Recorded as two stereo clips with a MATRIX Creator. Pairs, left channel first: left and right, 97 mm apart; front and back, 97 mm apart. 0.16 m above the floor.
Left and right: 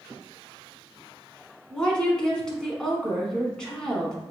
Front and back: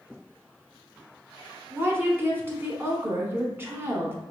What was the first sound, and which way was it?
A woman speaking, 160° left.